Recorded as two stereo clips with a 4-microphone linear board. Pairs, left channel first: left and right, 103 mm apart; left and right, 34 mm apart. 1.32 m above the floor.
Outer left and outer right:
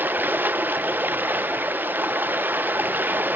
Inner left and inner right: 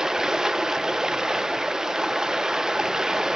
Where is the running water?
20° right (ahead or behind), 0.8 m.